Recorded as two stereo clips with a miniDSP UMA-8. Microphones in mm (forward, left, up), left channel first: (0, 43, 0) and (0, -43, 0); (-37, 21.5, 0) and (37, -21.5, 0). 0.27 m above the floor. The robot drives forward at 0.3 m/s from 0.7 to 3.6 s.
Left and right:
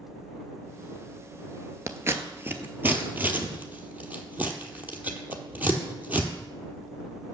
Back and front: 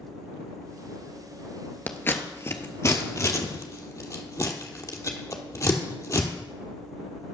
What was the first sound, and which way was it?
Scissors, 145° right.